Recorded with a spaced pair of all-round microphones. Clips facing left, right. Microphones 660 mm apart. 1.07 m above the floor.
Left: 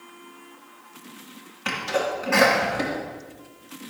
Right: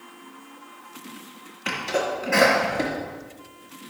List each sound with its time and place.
1.6 s a sneeze: 30° left (ahead or behind), 3 m